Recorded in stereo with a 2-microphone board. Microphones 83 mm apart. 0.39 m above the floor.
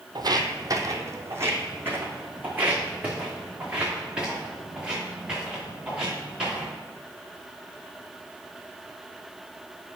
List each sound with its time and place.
0.1 s footsteps: 55° right (ahead or behind), 0.8 m; by 6.7 s 5° right (ahead or behind), 4 m